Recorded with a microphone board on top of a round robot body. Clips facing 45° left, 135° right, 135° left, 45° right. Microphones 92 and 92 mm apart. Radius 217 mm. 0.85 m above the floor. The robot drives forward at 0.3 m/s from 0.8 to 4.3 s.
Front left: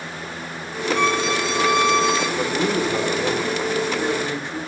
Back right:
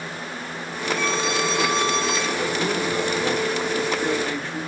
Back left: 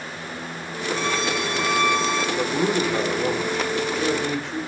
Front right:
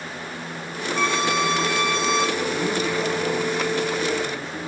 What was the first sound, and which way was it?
A violin, 20° left.